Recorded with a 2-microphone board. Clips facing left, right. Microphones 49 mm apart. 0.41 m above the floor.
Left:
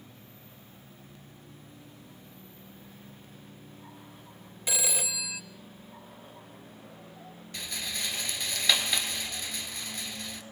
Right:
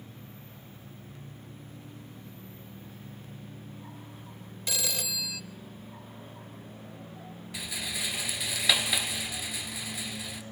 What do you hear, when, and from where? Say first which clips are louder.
4.7 s a phone ringing: left 1 dB; 20° left (ahead or behind), 0.9 m
7.5 s a rattle: right 1 dB; 5° right (ahead or behind), 1.9 m